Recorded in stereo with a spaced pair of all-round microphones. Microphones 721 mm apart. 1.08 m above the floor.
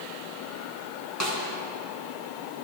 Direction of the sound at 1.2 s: 25° right (ahead or behind).